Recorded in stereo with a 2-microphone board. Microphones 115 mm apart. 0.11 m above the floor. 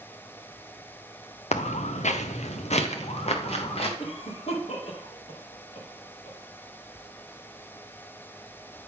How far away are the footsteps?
About 0.6 m.